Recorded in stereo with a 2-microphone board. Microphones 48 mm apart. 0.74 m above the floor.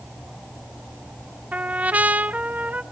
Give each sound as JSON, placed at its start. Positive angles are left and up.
{"t": 1.5, "sound": "a trumpet", "side_deg": -35, "distance_m": 0.5}